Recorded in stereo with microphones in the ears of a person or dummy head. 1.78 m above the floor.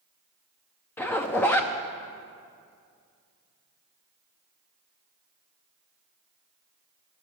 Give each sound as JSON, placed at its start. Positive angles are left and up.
{"t": 1.0, "sound": "a zipper", "side_deg": 10, "distance_m": 0.5}